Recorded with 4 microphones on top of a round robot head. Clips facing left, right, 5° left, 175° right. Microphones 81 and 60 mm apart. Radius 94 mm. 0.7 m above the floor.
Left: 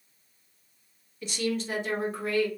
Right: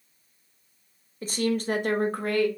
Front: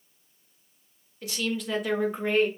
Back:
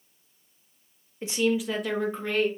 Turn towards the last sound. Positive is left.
turn(degrees=-60)